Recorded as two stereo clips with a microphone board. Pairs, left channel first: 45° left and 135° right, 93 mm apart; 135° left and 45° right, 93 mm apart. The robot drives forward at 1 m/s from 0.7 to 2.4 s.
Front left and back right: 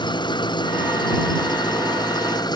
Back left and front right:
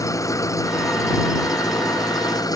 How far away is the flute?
No flute in this recording.